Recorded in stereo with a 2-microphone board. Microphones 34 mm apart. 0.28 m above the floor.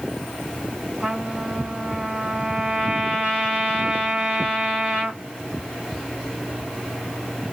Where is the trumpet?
30° right (ahead or behind), 3 m.